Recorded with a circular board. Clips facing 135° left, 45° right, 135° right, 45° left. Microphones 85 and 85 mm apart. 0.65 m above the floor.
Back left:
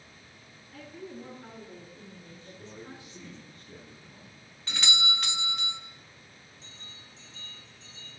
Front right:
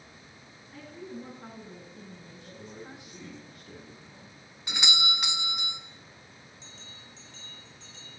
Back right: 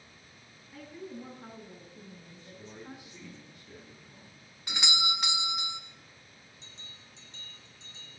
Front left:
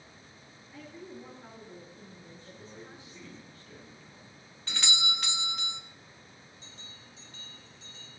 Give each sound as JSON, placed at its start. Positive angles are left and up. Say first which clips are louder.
{"t": 0.7, "sound": "a woman speaking", "louder": "front right 1 dB, back right 2 dB", "azimuth_deg": -105, "distance_m": 7.0}
{"t": 2.4, "sound": "a man speaking", "louder": "front right 1 dB, back right 2 dB", "azimuth_deg": -65, "distance_m": 9.5}
{"t": 4.7, "sound": "a doorbell", "louder": "even, back right 2 dB", "azimuth_deg": -90, "distance_m": 1.0}
{"t": 6.6, "sound": "a bell", "louder": "front right 2 dB, front left 2 dB", "azimuth_deg": -65, "distance_m": 5.0}